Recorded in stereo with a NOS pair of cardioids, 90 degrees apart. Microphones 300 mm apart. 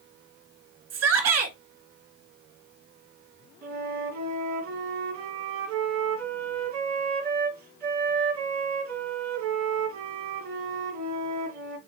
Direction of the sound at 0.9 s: 60° right.